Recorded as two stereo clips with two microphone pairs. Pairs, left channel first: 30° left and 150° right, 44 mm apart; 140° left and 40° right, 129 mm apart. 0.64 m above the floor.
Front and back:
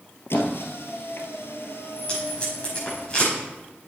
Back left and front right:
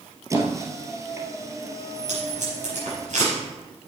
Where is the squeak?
25° left, 1.4 m.